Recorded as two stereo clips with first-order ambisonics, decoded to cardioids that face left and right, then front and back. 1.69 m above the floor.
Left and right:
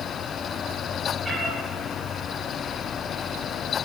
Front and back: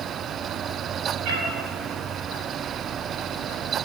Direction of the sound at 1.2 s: 170° right.